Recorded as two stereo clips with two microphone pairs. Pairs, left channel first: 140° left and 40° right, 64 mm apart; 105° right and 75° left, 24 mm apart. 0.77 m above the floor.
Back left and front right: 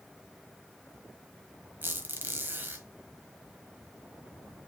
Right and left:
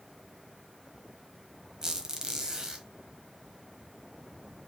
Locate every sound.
1.8 s a squeak: 15° left, 1.1 m